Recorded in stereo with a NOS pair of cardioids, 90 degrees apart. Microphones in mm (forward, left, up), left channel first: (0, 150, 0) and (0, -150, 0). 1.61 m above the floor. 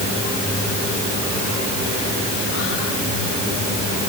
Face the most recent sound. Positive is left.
No sound to turn to.